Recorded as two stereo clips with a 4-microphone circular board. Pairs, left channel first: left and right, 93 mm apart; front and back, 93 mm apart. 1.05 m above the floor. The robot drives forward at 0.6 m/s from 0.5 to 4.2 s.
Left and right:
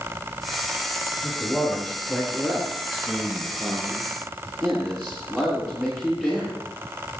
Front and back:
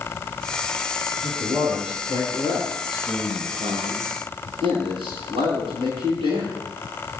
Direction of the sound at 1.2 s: 175° right.